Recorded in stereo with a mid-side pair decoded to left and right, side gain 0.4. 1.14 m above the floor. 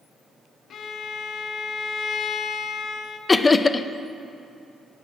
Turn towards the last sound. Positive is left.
turn(degrees=30)